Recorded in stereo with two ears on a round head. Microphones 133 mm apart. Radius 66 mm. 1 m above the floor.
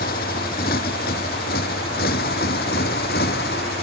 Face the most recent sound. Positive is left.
turn(degrees=75)  # may be behind; listen again after turning